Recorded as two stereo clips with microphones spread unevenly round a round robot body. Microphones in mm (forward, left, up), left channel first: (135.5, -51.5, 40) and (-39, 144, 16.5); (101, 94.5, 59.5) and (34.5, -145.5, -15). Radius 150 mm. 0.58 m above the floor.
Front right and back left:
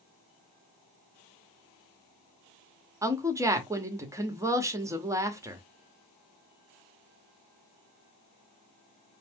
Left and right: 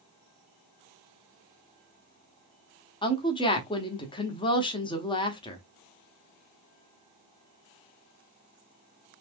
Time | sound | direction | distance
3.0 | a woman speaking | 160° left | 0.9 m